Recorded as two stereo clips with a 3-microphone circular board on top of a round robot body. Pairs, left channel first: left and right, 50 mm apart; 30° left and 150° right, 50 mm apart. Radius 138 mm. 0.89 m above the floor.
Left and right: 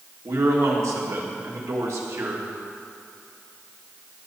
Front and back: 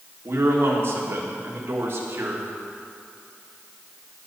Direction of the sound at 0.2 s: 110° right.